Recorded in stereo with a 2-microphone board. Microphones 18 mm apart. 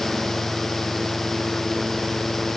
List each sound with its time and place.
Only background noise.